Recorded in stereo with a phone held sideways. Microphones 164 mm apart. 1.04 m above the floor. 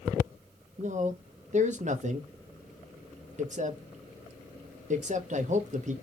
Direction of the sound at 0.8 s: 50° right (ahead or behind).